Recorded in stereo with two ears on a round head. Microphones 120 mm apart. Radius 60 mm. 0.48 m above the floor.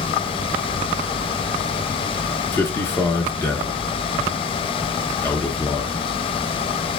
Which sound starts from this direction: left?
A man speaking, at 2.5 s.